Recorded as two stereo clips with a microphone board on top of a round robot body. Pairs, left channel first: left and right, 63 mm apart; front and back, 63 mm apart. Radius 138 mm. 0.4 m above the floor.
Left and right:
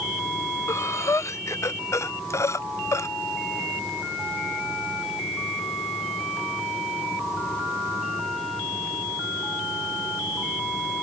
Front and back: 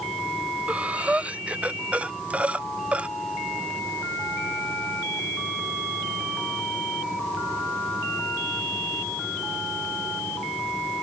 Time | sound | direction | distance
0.7 | breathing | 115° left | ?